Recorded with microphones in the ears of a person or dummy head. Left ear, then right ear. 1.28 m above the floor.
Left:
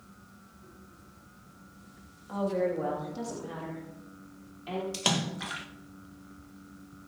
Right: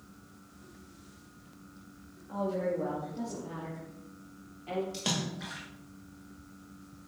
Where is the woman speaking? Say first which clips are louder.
Left 3 dB; 80° left, 2.5 m; by 4.8 s 45° left (ahead or behind), 3.5 m.